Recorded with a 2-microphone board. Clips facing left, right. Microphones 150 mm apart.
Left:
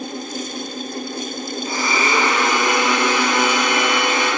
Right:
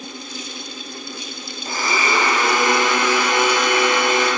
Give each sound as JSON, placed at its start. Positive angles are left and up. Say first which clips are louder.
{"t": 1.6, "sound": "a blender", "louder": "even", "side_deg": -40, "distance_m": 2.0}